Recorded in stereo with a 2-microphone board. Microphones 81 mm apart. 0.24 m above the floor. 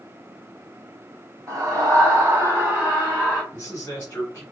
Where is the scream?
45° right (ahead or behind), 1.5 m; by 3.4 s 10° right (ahead or behind), 1.4 m.